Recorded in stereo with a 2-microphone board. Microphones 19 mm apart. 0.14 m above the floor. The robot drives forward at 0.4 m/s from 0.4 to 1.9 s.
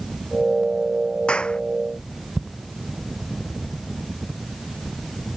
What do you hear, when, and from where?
1.3 s a clap: 60° left (ahead or behind); by 1.6 s 65° left (ahead or behind)